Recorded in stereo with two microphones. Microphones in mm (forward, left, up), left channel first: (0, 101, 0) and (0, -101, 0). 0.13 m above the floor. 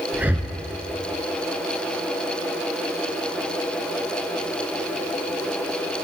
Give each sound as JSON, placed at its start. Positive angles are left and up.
{"t": 0.1, "sound": "breathing", "side_deg": -10, "distance_m": 0.7}